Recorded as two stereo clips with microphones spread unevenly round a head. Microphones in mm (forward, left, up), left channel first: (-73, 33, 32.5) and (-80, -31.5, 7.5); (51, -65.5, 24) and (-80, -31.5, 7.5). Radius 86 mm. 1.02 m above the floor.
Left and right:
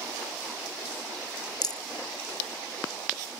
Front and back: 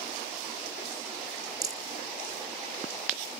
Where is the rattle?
95° left.